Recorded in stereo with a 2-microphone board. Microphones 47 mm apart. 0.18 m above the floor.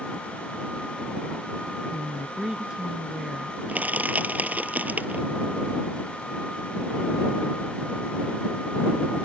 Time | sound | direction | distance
1.9 | a woman speaking | 15° right (ahead or behind) | ?
3.7 | crushing | 30° right (ahead or behind) | ?